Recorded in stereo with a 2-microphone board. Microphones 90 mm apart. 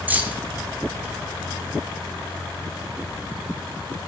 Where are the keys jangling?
20° right (ahead or behind), 1.1 m.